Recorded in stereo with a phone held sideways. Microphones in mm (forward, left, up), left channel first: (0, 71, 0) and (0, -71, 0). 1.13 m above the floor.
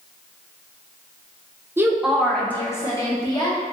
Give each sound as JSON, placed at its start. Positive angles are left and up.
{"t": 1.8, "sound": "a woman speaking", "side_deg": -15, "distance_m": 0.5}